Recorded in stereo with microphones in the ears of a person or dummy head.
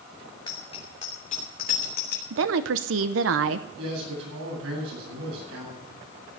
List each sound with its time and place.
0.5 s a bicycle bell: 25° left (ahead or behind), 3 m; by 2.2 s 45° left (ahead or behind), 4 m
2.3 s a woman speaking: 75° right (ahead or behind), 0.8 m
3.8 s a man speaking: 85° right, 9 m